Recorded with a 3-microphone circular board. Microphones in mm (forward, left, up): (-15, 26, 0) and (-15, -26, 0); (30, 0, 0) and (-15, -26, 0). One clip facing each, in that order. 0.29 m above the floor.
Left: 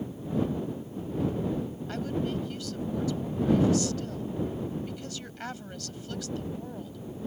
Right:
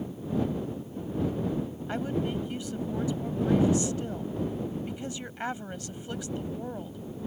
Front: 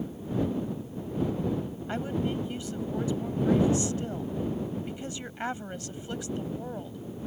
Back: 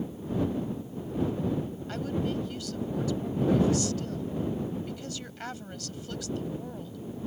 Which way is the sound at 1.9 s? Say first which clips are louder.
Right 1 dB, front 1 dB; 30° right.